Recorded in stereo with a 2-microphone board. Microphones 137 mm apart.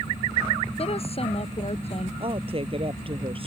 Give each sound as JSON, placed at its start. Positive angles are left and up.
{"t": 0.8, "sound": "a woman speaking", "side_deg": 45}
{"t": 2.2, "sound": "a woman speaking", "side_deg": -40}